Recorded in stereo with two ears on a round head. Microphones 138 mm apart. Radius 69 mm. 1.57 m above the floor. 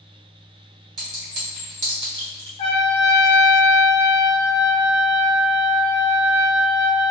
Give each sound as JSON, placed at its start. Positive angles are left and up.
{"t": 1.0, "sound": "a clink", "side_deg": -30, "distance_m": 1.3}
{"t": 2.6, "sound": "a trumpet", "side_deg": 35, "distance_m": 0.6}